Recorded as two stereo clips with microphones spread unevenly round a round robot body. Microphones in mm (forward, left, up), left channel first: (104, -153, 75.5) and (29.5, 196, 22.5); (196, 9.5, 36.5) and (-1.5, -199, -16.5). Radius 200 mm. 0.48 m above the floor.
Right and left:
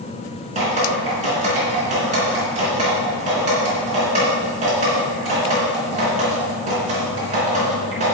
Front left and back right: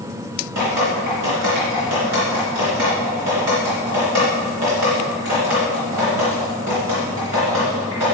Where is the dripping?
175° left, 3 m.